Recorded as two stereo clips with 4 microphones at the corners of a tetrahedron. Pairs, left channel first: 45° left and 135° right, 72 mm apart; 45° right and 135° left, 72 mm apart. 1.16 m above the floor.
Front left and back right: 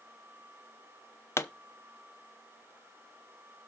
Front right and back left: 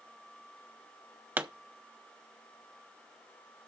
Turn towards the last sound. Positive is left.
turn(degrees=85)